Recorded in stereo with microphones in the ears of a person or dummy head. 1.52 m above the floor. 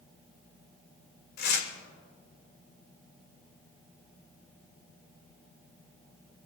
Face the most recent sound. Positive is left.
turn(degrees=55)  # may be behind; listen again after turning